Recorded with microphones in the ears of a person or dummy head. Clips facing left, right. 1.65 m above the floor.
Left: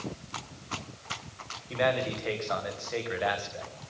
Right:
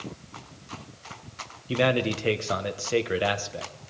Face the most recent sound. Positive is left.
turn(degrees=-45)  # may be behind; listen again after turning